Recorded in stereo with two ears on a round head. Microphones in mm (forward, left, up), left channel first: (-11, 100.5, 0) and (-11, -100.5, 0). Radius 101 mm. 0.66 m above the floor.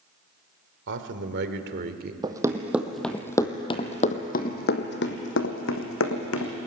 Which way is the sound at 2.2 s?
20° right (ahead or behind).